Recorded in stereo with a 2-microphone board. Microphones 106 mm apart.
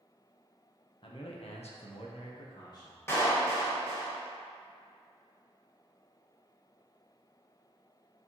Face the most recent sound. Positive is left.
turn(degrees=25)  # may be behind; listen again after turning